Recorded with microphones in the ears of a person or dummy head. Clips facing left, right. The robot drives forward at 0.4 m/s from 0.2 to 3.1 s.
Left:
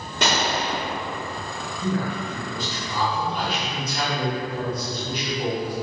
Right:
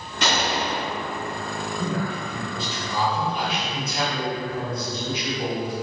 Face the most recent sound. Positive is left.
turn(degrees=-25)  # may be behind; listen again after turning